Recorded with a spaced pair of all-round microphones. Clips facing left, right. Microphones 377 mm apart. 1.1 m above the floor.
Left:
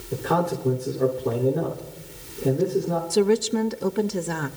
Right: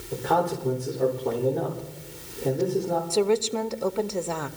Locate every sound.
0.1 s a man speaking: 20° left (ahead or behind), 4 m
3.1 s a woman speaking: 25° left (ahead or behind), 0.7 m